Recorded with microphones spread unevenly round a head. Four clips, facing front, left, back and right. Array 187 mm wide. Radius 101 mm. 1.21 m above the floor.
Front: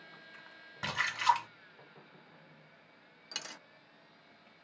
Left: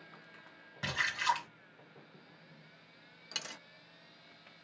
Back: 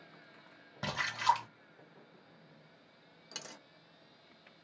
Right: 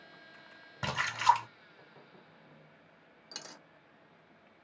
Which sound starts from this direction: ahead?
A dropped coin, at 3.3 s.